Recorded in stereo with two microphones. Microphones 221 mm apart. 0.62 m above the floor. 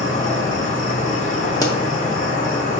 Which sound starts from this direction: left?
An insect, at 0.0 s.